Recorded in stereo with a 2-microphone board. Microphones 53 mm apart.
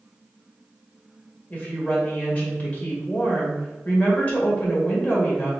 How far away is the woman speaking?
About 2.0 m.